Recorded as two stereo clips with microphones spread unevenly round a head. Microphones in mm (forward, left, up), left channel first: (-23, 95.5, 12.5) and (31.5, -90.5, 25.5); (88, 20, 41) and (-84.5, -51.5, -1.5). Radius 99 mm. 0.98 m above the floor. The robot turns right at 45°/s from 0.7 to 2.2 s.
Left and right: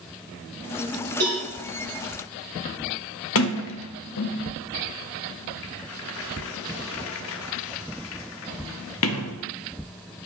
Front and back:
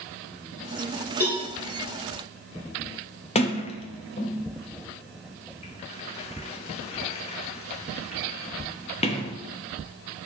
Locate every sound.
1.2 s a cowbell: 75° right, 3.5 m; by 1.4 s 60° right, 3.5 m
3.4 s a sliding door: 85° left, 0.6 m